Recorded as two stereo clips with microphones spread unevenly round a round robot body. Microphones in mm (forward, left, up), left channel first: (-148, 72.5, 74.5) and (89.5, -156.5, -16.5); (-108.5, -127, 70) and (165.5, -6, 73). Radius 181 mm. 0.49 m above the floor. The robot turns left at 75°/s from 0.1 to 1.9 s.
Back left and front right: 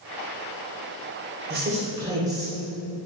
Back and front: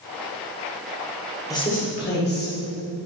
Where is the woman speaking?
80° right, 2 m; by 2.5 s 110° right, 2 m.